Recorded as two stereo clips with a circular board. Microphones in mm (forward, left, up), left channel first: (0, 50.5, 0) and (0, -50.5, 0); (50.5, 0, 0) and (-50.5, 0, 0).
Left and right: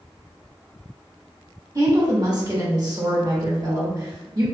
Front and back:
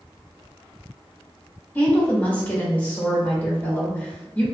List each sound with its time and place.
1.8 s a woman speaking: 65° right, 1.0 m